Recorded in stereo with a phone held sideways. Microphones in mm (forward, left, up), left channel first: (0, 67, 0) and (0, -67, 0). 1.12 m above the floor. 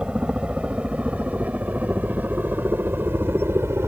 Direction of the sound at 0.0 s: 10° right (ahead or behind).